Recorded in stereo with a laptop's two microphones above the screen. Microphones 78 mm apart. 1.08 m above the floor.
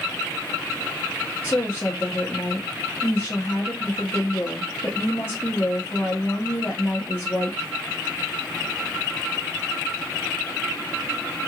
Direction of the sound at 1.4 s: 25° left (ahead or behind).